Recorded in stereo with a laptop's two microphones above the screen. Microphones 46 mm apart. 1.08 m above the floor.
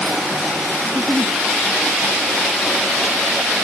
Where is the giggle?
70° left (ahead or behind), 0.9 m.